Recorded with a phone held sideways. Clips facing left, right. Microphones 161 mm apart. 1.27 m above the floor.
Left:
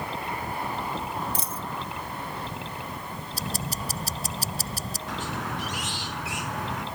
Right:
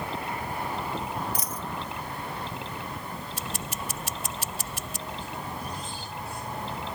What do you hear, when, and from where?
1.4 s a dropped coin: 30° left (ahead or behind)
3.3 s ticking: 35° left (ahead or behind)
5.1 s a squeak: 85° left